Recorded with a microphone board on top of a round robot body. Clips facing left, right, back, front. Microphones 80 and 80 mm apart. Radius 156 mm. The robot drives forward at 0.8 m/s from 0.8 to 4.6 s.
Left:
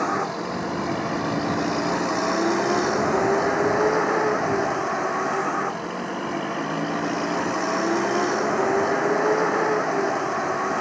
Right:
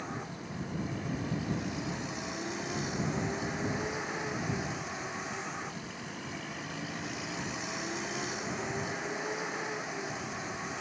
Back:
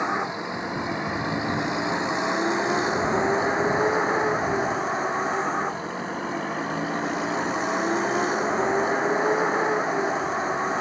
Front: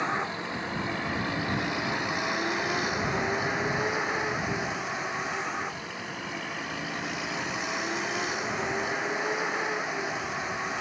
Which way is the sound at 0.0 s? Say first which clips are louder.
Left 16 dB, back 4 dB; 110° left.